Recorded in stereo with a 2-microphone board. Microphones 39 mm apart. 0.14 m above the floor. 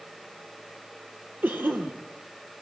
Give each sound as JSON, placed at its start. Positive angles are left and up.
{"t": 1.4, "sound": "a cough", "side_deg": -65, "distance_m": 4.0}